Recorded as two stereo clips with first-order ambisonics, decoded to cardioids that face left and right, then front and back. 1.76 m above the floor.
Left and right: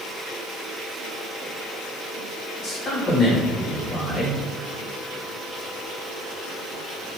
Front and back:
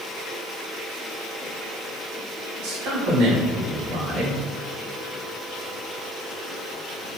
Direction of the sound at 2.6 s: 165° left.